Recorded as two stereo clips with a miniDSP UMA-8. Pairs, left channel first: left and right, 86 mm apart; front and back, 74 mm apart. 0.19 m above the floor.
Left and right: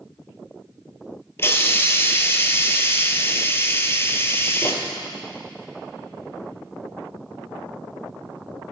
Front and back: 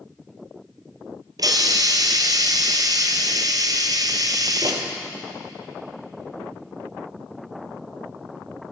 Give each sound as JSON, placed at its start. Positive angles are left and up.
{"t": 1.4, "sound": "a hiss", "azimuth_deg": 150, "distance_m": 0.9}